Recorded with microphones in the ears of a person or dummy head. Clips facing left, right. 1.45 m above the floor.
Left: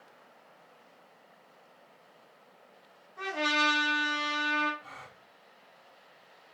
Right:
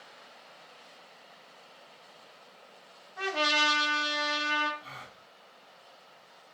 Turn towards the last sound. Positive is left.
turn(degrees=-40)  # may be behind; listen again after turning